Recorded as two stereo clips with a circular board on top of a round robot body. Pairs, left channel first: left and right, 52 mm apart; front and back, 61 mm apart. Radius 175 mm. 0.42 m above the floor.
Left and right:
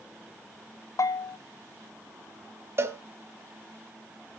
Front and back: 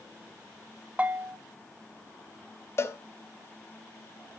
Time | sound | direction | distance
1.0 | a bell | 110° left | 0.8 m
2.8 | a cowbell | 50° right | 1.0 m